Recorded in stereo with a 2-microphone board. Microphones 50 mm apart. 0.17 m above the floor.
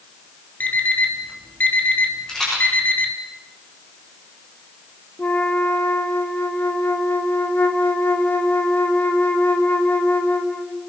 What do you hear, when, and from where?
0.6 s an alarm clock: 35° left (ahead or behind), 2.5 m
2.3 s a rattle: 15° left (ahead or behind), 9 m
5.2 s a flute: 40° left (ahead or behind), 1.8 m